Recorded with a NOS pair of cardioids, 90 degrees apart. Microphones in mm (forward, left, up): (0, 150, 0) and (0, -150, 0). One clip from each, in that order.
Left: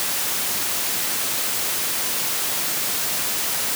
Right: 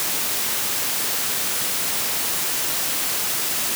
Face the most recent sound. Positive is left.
No sound to turn to.